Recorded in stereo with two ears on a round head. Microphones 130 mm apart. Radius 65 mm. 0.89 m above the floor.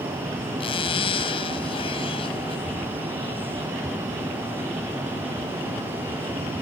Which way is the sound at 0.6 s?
40° left (ahead or behind).